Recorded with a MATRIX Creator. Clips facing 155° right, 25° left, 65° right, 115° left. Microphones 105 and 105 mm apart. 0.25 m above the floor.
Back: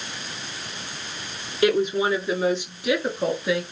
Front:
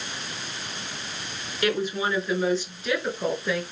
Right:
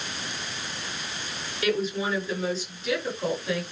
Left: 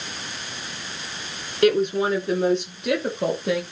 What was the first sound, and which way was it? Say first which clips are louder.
A woman speaking: back 5 dB, left 8 dB; 135° left.